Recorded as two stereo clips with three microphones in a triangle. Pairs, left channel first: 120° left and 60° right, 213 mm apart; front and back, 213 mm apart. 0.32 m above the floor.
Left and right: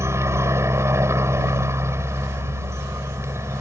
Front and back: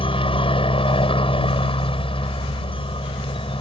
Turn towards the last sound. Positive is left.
turn(degrees=0)